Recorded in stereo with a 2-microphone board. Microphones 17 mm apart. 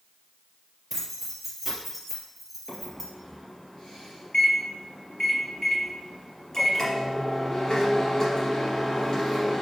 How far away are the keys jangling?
About 3 m.